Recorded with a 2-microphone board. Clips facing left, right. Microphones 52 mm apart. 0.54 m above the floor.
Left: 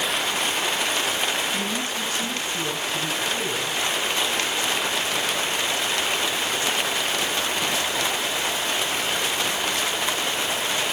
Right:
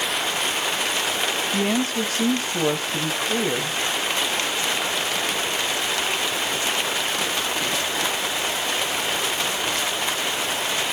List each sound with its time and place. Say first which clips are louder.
1.5 s a woman speaking: right 4 dB; 70° right (ahead or behind), 3 m; by 3.8 s 65° right (ahead or behind), 3.5 m